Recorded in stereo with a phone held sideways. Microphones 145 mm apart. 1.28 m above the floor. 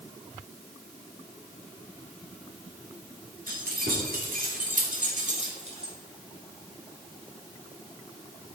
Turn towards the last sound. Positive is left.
turn(degrees=-40)  # may be behind; listen again after turning